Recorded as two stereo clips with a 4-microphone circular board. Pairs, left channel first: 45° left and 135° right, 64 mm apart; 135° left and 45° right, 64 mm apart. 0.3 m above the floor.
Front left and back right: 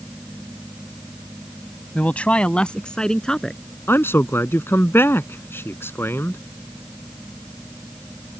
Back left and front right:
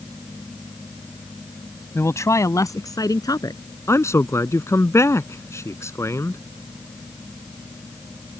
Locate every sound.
1.9 s a man speaking: 105° left; by 3.6 s 125° left
3.9 s a man speaking: 95° left